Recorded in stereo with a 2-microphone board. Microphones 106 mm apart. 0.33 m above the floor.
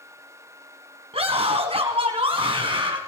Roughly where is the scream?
Right.